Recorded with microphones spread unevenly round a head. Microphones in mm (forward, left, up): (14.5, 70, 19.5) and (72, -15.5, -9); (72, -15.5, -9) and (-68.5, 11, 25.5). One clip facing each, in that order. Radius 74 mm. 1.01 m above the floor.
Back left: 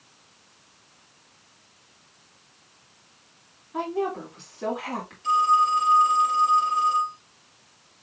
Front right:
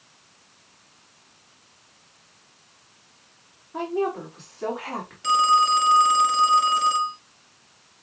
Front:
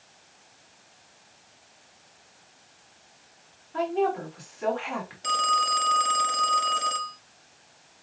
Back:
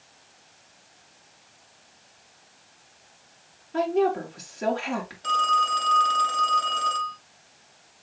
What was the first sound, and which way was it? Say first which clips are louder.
A woman speaking: front right 2 dB, back 3 dB; 150° right.